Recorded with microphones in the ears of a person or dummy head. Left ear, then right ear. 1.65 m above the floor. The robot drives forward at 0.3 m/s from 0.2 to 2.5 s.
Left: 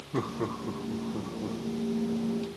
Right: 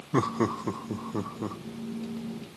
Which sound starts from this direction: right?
Laughter, at 0.1 s.